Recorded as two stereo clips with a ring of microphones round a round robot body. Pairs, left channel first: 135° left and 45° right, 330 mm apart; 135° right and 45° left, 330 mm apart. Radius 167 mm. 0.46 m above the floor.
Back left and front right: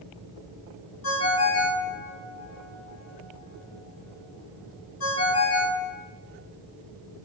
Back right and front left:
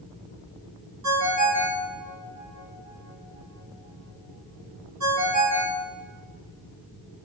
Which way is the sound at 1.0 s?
90° left.